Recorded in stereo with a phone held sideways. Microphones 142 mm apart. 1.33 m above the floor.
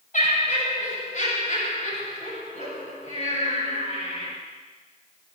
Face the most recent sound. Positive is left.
turn(degrees=70)  # may be behind; listen again after turning